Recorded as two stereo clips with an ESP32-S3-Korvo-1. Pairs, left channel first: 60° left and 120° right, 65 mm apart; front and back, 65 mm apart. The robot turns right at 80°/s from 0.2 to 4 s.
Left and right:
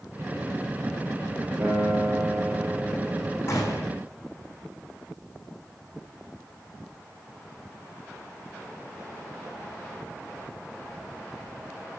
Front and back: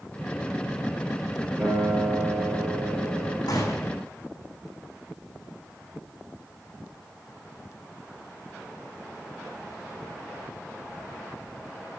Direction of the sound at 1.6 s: 165° right.